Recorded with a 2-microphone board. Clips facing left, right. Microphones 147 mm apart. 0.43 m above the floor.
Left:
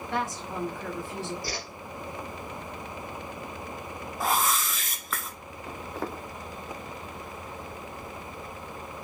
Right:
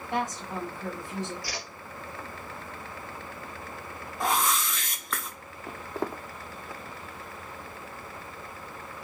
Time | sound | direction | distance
0.1 | a woman speaking | 20° right (ahead or behind) | 1.3 m
1.4 | a whoosh | 25° left (ahead or behind) | 1.5 m
4.2 | a whoosh | 5° left (ahead or behind) | 0.8 m
5.7 | footsteps | 15° right (ahead or behind) | 0.9 m